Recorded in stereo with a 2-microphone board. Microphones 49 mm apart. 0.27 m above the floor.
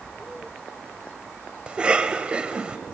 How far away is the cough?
About 1.0 m.